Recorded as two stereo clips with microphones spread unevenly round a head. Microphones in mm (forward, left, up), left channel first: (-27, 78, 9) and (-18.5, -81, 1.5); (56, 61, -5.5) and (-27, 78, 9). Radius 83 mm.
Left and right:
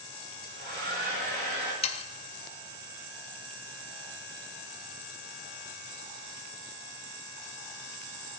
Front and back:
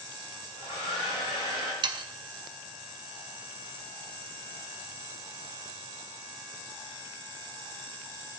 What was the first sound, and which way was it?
A hair dryer, 45° right.